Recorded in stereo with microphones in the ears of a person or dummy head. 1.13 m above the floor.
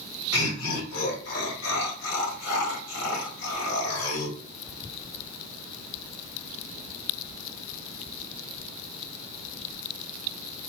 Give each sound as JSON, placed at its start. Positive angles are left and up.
{"t": 0.3, "sound": "laughter", "side_deg": 75, "distance_m": 3.0}